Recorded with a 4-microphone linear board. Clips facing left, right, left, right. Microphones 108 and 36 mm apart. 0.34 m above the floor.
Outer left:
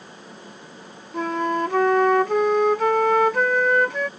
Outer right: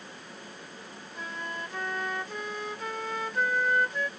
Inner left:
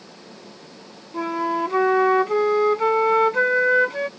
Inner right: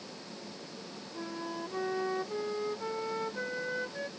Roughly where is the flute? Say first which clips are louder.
Outer left 16 dB, inner left 16 dB; left.